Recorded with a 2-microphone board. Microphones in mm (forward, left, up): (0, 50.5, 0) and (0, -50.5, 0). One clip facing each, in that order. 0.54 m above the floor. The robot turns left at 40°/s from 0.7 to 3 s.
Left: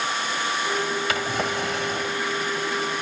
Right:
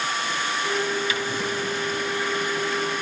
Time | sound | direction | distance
1.1 | a drawer | 100° left | 1.5 m